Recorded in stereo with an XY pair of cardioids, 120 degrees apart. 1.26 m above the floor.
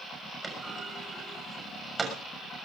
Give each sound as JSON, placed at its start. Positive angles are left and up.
{"t": 0.4, "sound": "a clunk", "azimuth_deg": -20, "distance_m": 6.5}